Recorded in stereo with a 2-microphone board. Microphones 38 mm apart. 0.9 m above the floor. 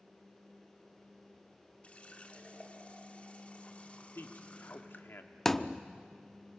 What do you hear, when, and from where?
1.8 s a running tap: 35° left (ahead or behind), 1.7 m
4.2 s a man speaking: 70° left (ahead or behind), 1.9 m
5.5 s a thud: 10° left (ahead or behind), 0.7 m